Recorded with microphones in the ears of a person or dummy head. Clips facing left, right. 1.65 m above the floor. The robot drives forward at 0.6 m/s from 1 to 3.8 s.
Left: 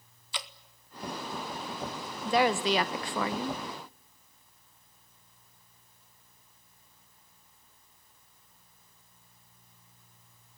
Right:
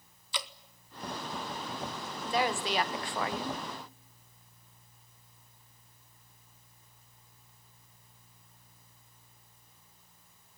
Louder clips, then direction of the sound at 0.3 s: Right 2 dB; 70° right (ahead or behind).